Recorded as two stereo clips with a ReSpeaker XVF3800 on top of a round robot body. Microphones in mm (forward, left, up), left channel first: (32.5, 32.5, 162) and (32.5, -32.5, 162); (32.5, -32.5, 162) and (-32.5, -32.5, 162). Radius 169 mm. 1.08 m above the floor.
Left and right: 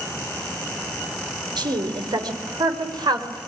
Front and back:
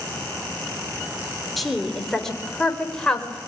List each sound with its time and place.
1.6 s a woman speaking: 90° right, 4.5 m; by 3.4 s 75° right, 5.5 m